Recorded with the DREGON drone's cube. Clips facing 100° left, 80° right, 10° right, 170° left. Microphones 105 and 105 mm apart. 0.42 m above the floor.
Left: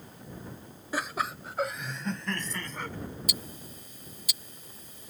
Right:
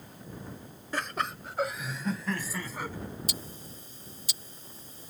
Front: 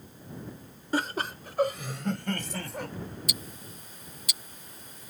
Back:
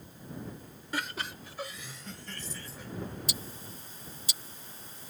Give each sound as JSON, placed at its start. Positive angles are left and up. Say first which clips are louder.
{"t": 0.9, "sound": "laughter", "louder": "left 1 dB, front 7 dB", "azimuth_deg": 20}
{"t": 3.3, "sound": "ticking", "louder": "left 1 dB, front 1 dB", "azimuth_deg": -130}